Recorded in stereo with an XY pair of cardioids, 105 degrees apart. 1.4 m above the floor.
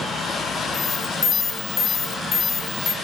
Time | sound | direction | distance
0.7 | an alarm | 30° left | 1.5 m